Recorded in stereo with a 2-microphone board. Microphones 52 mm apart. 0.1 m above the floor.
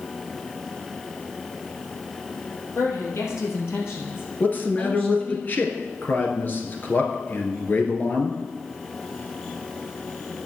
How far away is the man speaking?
About 1.4 m.